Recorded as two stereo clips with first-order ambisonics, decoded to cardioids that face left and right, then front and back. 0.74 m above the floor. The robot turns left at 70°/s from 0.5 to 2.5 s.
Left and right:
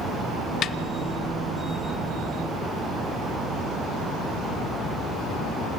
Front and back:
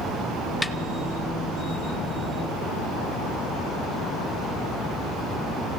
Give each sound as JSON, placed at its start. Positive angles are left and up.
{"t": 0.6, "sound": "a snare drum", "azimuth_deg": 85, "distance_m": 0.5}